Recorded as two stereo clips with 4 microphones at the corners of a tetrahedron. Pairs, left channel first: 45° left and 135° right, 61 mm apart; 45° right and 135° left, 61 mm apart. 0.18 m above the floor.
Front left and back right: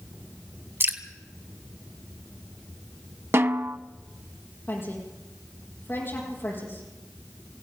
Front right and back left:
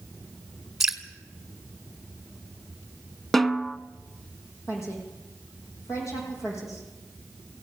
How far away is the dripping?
About 1.9 m.